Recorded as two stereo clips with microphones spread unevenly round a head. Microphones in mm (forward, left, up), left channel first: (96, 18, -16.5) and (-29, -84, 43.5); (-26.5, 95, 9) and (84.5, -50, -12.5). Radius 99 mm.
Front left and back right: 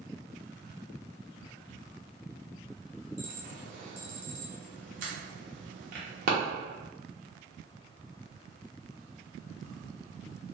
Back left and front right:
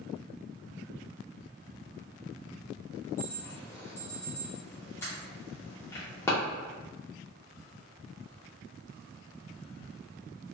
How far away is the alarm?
About 0.9 m.